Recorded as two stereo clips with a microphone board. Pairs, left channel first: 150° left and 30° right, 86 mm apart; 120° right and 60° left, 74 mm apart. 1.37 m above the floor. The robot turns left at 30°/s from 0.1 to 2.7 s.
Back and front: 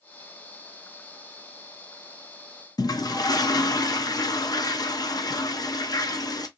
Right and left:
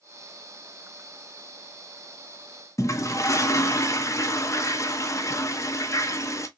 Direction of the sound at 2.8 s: 170° right.